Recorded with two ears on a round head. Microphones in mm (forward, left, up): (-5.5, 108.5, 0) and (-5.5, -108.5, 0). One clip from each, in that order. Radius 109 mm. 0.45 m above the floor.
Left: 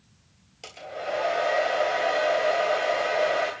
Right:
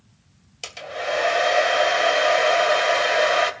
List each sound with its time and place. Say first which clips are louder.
0.6 s a hair dryer: right 5 dB; 55° right (ahead or behind), 2.5 m